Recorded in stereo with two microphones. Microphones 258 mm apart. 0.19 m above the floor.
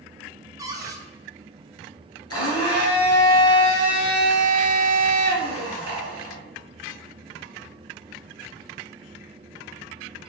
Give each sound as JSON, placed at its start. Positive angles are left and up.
{"t": 0.6, "sound": "a cupboard door", "side_deg": -15, "distance_m": 0.7}
{"t": 2.3, "sound": "a blender", "side_deg": 75, "distance_m": 1.3}